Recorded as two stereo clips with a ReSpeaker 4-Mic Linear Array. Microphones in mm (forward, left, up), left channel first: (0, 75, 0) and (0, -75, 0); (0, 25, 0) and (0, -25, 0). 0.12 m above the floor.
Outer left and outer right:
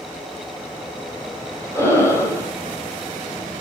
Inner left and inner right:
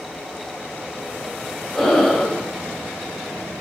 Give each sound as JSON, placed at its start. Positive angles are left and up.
{"t": 1.8, "sound": "breathing", "side_deg": 20, "distance_m": 4.5}